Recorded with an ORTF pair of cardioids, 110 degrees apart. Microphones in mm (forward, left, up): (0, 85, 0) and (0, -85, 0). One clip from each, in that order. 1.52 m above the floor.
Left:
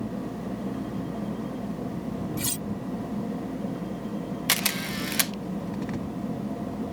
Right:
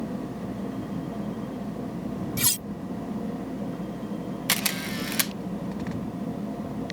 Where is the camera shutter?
5° left.